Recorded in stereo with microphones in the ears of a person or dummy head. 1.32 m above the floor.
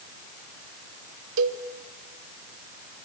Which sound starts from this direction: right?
A cowbell, at 1.4 s.